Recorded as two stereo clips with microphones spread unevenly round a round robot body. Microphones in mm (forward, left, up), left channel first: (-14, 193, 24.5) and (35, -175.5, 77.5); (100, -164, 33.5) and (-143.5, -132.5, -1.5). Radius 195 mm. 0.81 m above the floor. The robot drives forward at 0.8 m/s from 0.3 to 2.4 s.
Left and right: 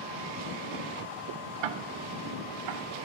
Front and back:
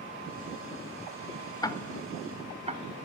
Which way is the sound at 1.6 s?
80° right.